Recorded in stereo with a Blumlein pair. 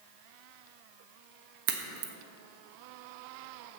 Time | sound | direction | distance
1.7 | a crack | 50° right | 1.3 m